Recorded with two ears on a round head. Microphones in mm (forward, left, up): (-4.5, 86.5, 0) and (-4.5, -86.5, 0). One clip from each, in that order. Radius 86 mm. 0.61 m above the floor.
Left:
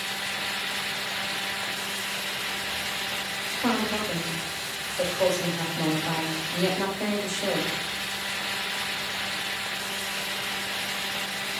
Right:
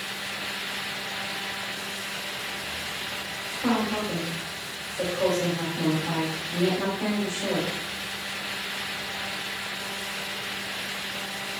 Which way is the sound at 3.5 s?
35° left (ahead or behind).